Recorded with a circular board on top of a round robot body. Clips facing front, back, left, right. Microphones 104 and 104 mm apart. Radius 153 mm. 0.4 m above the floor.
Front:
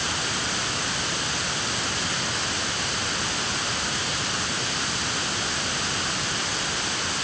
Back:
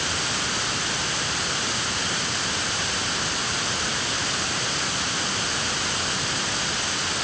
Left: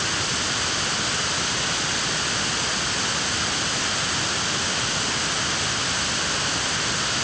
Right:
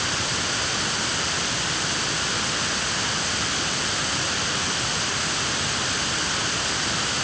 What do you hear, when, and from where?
Only background noise.